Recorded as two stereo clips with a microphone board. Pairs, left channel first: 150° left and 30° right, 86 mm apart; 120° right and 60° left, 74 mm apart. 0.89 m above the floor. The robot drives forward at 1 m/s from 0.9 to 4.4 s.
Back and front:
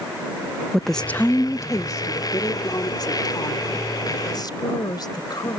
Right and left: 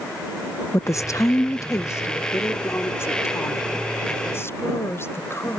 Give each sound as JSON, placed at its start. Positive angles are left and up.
{"t": 0.7, "sound": "a woman speaking", "azimuth_deg": -125}